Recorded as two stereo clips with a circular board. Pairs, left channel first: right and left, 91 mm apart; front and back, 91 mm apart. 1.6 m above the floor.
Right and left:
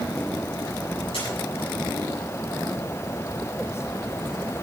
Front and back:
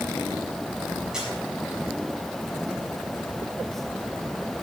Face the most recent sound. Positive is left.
turn(degrees=-100)